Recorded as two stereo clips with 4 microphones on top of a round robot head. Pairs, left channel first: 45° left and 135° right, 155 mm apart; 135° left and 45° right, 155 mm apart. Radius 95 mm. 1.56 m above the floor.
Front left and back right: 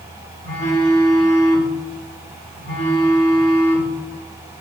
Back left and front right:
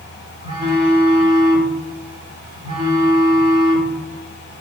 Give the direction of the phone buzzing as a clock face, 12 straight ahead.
12 o'clock.